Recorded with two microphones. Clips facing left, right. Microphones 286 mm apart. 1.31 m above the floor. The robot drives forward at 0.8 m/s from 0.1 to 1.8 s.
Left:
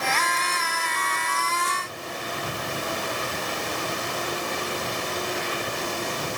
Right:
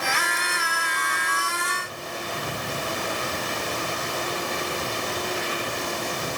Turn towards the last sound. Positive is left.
No sound to turn to.